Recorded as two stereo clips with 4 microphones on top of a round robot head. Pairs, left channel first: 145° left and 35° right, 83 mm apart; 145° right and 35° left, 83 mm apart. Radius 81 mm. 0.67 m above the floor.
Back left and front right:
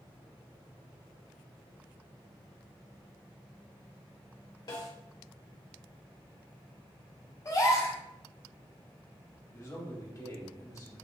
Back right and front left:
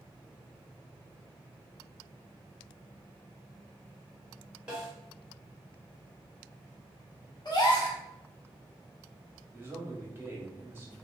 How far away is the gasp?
About 1.4 m.